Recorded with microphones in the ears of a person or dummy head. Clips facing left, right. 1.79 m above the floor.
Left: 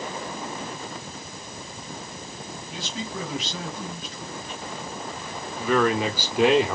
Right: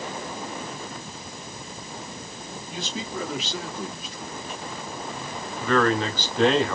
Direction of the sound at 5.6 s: 5° left (ahead or behind).